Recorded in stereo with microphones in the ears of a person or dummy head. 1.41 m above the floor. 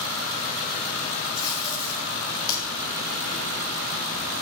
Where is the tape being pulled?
20° left (ahead or behind), 4.5 m.